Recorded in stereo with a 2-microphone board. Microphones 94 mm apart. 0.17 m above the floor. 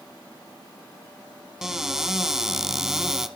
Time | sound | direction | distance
1.6 | a cupboard door | 5° right (ahead or behind) | 0.9 m